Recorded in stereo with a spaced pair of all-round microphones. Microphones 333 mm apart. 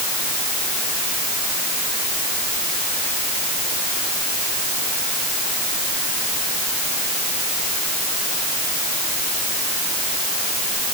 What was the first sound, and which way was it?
Only background noise.